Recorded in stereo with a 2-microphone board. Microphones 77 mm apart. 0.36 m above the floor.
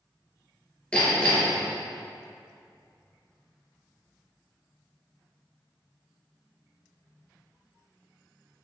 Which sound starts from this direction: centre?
Hammering, at 0.9 s.